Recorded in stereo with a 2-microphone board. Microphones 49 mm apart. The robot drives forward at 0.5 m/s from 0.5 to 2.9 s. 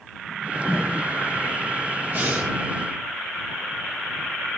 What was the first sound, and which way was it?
A whoosh, 10° left (ahead or behind).